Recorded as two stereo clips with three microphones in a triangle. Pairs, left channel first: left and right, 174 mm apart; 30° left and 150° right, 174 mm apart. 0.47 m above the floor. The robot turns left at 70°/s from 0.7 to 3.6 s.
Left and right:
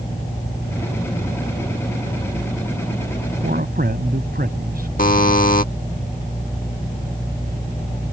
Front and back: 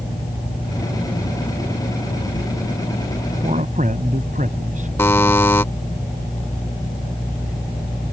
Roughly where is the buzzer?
Left.